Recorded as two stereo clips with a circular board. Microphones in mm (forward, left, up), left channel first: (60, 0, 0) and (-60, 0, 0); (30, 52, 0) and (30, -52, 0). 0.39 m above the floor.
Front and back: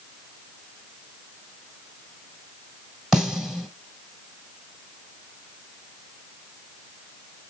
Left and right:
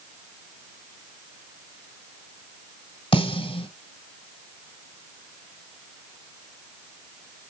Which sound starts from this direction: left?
A snare drum, at 3.1 s.